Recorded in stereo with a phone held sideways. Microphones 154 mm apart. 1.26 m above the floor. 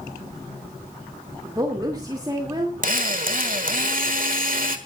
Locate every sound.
1.4 s a woman speaking: 25° right (ahead or behind), 2 m
2.8 s a drill: 65° right (ahead or behind), 1.6 m